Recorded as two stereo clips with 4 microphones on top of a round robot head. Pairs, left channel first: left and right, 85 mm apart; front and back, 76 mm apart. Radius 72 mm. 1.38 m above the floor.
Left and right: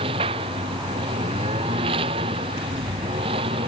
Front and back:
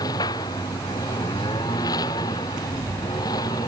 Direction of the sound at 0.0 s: 55° right.